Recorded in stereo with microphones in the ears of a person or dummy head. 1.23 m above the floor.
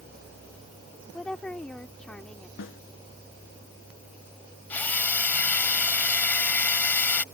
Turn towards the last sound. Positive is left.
turn(degrees=10)  # may be behind; listen again after turning